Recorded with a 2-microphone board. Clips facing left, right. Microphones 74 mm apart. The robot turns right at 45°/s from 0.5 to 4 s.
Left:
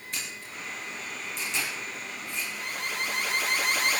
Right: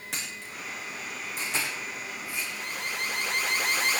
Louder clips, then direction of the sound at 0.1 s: Even; 85° right.